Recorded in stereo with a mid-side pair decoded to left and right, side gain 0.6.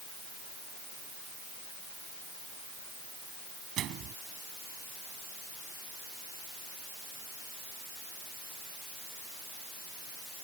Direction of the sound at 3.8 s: 55° right.